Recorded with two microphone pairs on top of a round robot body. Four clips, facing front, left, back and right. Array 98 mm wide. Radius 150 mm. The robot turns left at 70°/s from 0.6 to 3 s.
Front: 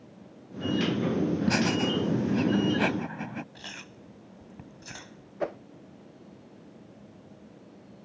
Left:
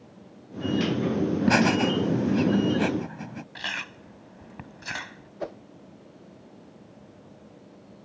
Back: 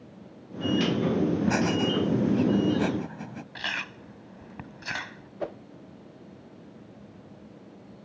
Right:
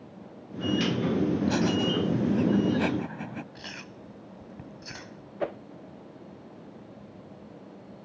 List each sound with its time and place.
1.5 s laughter: 75° left; by 3.4 s 30° right
3.5 s chewing: 150° left
5.4 s a whoosh: 40° right